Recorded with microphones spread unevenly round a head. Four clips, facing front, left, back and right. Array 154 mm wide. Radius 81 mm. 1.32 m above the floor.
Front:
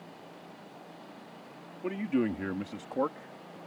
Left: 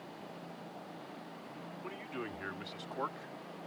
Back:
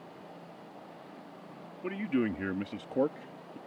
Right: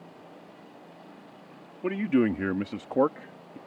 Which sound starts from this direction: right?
A man speaking, at 1.8 s.